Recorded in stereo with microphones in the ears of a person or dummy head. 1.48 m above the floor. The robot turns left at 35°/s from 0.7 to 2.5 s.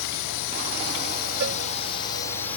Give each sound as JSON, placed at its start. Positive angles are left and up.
{"t": 0.0, "sound": "a drone", "azimuth_deg": 75}
{"t": 1.4, "sound": "a cowbell", "side_deg": -65}